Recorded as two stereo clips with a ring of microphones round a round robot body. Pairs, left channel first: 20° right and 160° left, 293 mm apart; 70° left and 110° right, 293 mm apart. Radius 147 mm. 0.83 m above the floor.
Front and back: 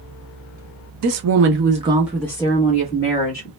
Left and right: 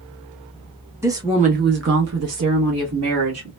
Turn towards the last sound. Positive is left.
turn(degrees=-75)